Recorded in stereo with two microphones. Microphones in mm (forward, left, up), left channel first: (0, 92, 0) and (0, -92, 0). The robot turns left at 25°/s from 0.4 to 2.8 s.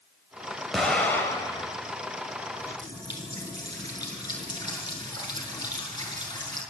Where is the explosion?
Centre (ahead or behind), 4 m; by 1.7 s 25° left (ahead or behind), 4 m.